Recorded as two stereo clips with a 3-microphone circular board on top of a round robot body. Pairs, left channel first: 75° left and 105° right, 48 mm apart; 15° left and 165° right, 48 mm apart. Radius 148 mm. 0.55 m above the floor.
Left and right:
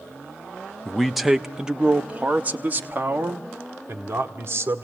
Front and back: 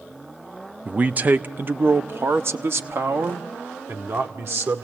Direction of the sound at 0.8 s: 155° left.